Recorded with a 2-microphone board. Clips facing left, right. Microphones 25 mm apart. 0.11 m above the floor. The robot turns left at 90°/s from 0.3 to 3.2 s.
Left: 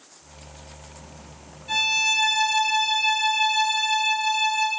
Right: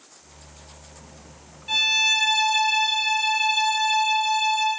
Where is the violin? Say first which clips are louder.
Right 2 dB; 30° right, 1.0 m; by 4.7 s 165° right, 1.0 m.